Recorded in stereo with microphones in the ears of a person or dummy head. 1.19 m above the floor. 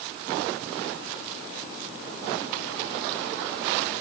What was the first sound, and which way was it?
Only background noise.